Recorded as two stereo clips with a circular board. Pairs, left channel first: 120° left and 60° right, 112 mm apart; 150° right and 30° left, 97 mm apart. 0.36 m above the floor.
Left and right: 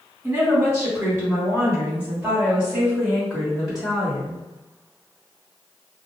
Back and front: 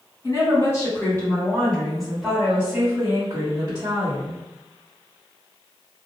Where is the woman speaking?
115° right, 2.0 m; by 4.4 s 35° left, 2 m.